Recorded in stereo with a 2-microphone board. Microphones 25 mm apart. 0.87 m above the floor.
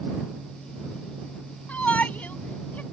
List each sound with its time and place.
1.7 s a shout: 85° left